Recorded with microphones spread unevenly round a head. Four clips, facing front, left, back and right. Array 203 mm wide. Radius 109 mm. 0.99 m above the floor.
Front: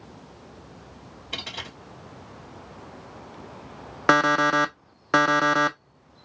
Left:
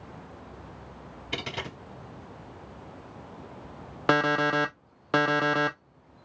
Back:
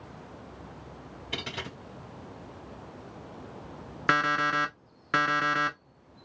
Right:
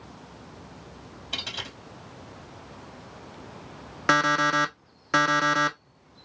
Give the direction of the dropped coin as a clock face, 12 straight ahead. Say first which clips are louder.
Left 4 dB, even; 9 o'clock.